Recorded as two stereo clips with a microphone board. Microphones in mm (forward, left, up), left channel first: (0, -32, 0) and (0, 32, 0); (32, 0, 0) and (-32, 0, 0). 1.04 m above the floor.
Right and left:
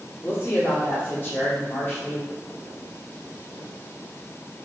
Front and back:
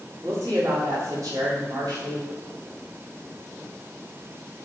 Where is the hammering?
No hammering in this recording.